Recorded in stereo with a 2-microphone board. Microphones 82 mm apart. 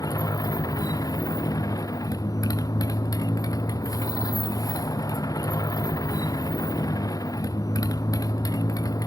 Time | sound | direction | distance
0.0 | a motorcycle | 45° left (ahead or behind) | ?